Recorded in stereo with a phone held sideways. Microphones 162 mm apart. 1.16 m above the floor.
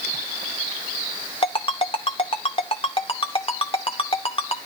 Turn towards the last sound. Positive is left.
turn(degrees=35)  # may be behind; listen again after turning